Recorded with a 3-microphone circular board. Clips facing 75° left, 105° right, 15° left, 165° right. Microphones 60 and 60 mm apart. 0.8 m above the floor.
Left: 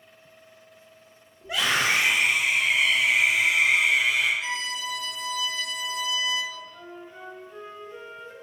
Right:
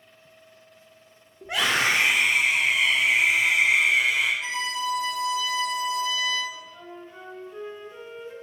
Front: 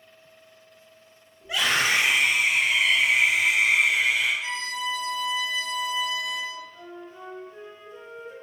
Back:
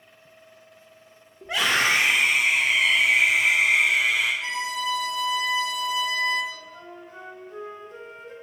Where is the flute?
175° left, 3 m.